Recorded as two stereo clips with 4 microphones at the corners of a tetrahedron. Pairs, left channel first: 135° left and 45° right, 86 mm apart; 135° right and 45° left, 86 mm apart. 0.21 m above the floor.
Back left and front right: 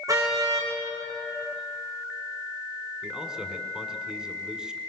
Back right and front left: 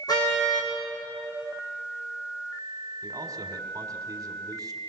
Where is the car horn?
95° right, 5 m.